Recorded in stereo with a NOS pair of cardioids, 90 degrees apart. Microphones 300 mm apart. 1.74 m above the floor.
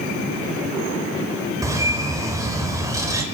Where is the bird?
10° right, 5 m.